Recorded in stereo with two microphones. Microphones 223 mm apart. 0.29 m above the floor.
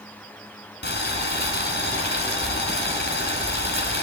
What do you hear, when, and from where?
0.8 s boiling: 50° left (ahead or behind), 1.9 m